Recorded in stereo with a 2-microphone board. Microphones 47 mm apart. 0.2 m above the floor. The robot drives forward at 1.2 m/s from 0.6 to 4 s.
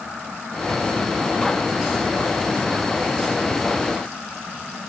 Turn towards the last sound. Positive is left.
No sound to turn to.